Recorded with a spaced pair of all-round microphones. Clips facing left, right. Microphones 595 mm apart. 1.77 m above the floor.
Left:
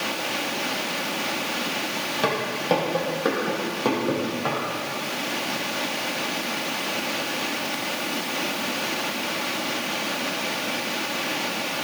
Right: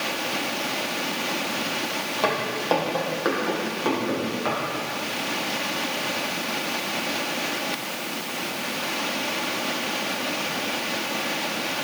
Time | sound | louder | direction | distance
2.2 | footsteps | left 1 dB | 40° left (ahead or behind) | 4 m